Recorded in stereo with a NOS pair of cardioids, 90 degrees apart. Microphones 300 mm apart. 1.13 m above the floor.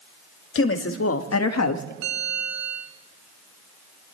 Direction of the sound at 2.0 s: 60° right.